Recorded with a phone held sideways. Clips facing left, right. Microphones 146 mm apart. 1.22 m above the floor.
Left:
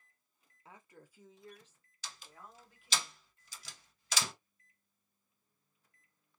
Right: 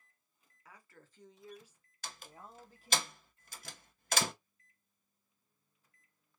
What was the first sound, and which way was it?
A woman speaking, 25° left (ahead or behind).